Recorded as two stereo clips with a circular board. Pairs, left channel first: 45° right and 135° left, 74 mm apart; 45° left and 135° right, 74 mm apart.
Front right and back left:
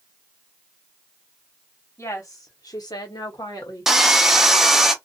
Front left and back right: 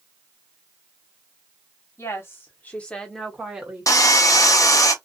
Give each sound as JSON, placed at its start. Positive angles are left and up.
{"t": 2.0, "sound": "a woman speaking", "azimuth_deg": 0, "distance_m": 1.2}
{"t": 3.9, "sound": "sawing", "azimuth_deg": 50, "distance_m": 0.6}